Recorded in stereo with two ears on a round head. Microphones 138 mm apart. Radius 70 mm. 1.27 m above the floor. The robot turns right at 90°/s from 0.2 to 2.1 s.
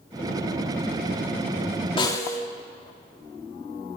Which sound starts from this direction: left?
A snare drum, at 2.0 s.